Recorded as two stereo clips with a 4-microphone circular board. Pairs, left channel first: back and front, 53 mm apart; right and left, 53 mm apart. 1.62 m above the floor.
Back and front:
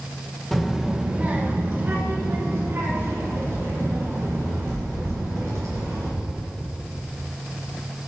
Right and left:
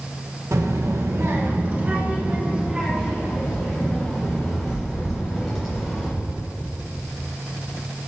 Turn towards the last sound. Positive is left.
turn(degrees=5)